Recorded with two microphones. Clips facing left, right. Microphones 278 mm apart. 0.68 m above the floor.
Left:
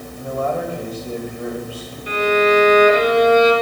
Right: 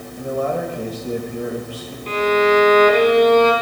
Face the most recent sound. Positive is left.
turn(degrees=10)  # may be behind; listen again after turning